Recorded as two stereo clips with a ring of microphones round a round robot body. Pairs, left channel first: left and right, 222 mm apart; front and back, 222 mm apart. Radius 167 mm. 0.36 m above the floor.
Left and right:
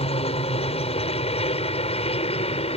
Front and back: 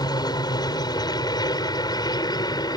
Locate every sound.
0.0 s a helicopter: 55° left